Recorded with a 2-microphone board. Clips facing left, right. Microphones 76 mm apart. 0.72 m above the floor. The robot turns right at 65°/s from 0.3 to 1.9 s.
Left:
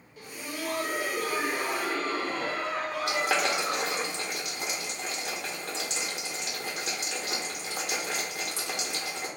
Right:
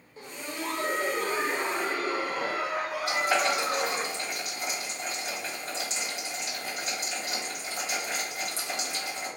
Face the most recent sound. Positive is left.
turn(degrees=65)  # may be behind; listen again after turning